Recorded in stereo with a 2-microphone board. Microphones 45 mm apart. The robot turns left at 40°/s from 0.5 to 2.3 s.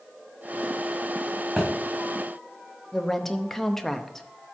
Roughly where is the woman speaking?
Centre.